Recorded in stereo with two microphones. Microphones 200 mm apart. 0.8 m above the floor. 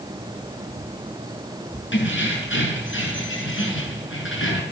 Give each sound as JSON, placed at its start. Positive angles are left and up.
{"t": 1.9, "sound": "keys jangling", "side_deg": 70, "distance_m": 8.0}